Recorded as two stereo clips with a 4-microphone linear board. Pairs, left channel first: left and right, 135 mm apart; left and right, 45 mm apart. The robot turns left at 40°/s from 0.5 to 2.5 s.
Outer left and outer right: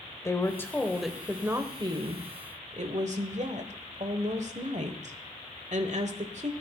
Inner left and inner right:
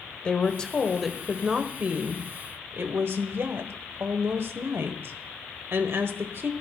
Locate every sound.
0.2 s a woman speaking: 20° left, 1.2 m; by 6.5 s 60° right, 1.2 m